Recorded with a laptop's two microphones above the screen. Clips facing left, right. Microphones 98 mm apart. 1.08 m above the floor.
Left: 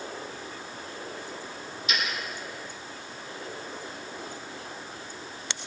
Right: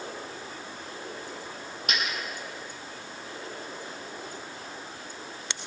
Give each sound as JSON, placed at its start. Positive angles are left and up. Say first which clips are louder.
{"t": 1.9, "sound": "a dropped coin", "louder": "even", "side_deg": -55, "distance_m": 6.0}